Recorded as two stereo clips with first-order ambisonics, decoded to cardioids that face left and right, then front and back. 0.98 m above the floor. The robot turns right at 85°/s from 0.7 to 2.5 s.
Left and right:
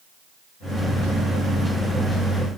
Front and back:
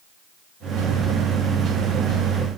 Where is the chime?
No chime in this recording.